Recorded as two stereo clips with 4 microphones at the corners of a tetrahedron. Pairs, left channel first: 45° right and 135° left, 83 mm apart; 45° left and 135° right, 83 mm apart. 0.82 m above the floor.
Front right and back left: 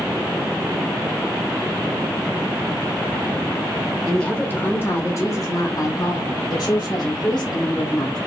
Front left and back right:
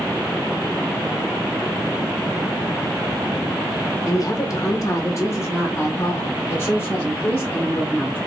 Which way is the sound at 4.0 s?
40° left.